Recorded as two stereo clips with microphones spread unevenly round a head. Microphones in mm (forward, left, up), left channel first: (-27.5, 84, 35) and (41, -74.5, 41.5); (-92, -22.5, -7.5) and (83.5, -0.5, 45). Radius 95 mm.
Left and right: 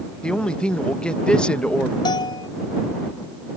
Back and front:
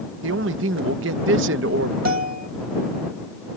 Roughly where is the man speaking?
Ahead left.